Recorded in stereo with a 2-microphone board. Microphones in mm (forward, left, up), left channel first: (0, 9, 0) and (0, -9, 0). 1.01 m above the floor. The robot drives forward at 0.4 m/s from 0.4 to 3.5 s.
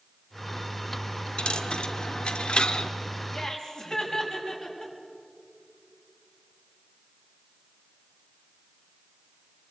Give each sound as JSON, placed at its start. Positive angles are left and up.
{"t": 1.4, "sound": "a dropped coin", "side_deg": 65, "distance_m": 1.2}
{"t": 3.3, "sound": "laughter", "side_deg": 25, "distance_m": 6.0}